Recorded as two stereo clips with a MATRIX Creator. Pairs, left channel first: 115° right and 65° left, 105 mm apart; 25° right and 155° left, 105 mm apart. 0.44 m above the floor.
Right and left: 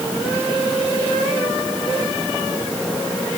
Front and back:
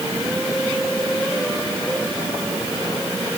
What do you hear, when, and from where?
Only background noise.